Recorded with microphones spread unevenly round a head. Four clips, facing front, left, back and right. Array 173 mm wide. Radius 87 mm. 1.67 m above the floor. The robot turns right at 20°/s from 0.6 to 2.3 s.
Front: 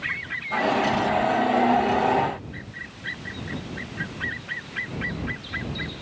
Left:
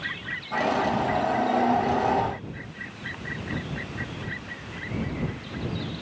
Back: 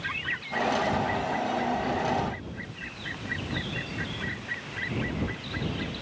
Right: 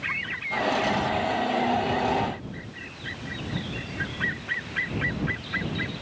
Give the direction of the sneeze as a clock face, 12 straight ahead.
No sneeze in this recording.